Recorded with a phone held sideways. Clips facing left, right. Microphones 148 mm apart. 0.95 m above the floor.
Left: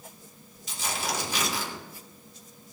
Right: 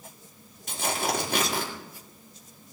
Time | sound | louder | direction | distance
0.7 | tearing paper | right 4 dB | 55° right (ahead or behind) | 2.0 m